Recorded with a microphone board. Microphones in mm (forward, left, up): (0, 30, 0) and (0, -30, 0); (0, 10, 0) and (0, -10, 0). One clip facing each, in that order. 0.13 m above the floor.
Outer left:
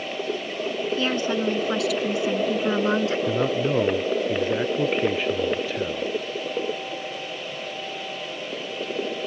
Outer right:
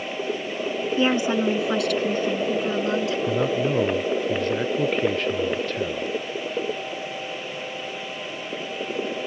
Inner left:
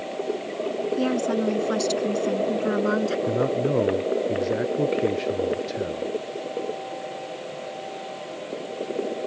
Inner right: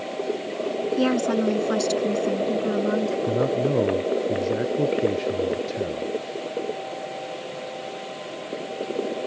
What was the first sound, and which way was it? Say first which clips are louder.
A woman speaking: outer right 5 dB, inner right 3 dB; 25° right (ahead or behind).